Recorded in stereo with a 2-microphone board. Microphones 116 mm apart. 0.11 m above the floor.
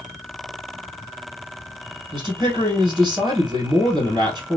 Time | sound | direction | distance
2.1 | a man speaking | 35° right (ahead or behind) | 1.8 m